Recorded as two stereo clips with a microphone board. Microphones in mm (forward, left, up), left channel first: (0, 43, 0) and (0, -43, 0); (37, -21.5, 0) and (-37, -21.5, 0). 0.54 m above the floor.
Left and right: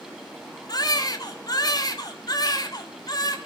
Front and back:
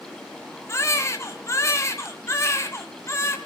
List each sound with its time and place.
0.7 s a baby crying: 50° left, 2 m